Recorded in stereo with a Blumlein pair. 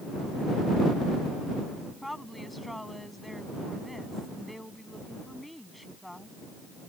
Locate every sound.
2.0 s a woman speaking: 5° left